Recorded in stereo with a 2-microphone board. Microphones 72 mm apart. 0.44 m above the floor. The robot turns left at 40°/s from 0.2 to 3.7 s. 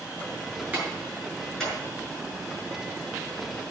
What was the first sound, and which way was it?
A clap, 25° right (ahead or behind).